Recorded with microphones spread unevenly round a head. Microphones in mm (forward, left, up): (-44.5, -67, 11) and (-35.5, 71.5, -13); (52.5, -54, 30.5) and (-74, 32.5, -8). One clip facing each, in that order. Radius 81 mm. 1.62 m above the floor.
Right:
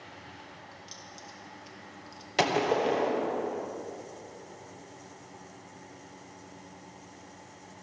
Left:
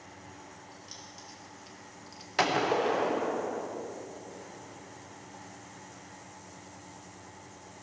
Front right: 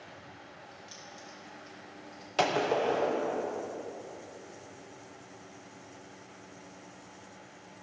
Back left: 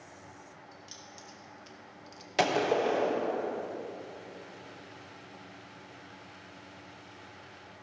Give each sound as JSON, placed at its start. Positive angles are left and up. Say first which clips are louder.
{"t": 0.7, "sound": "keys jangling", "louder": "right 1 dB, front right 2 dB", "azimuth_deg": -140, "distance_m": 2.0}
{"t": 2.4, "sound": "a gunshot", "louder": "right 1 dB, back left 1 dB", "azimuth_deg": -125, "distance_m": 1.0}